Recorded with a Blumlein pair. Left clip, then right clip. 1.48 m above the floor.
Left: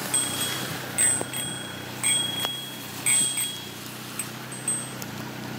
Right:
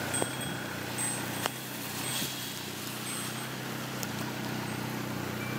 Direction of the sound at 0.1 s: 60° left.